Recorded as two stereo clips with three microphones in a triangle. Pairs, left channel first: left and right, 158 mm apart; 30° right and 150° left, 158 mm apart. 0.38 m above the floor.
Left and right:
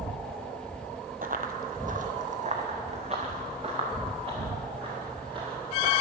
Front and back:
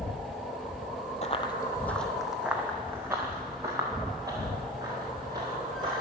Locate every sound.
1.2 s running footsteps: 70° right, 0.7 m; by 6.0 s 145° right, 4.5 m